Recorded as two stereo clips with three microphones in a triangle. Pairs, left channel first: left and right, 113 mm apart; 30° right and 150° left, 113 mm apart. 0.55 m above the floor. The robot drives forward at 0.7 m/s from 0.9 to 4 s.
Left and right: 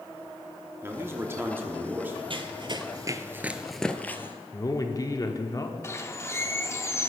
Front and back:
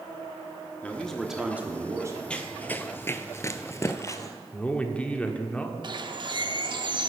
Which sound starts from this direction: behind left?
A bird, at 5.8 s.